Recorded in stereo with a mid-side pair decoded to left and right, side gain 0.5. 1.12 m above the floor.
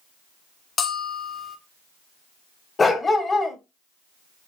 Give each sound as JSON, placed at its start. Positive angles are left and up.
{"t": 0.8, "sound": "a bell", "azimuth_deg": 40, "distance_m": 1.9}
{"t": 2.8, "sound": "a dog barking", "azimuth_deg": 25, "distance_m": 2.5}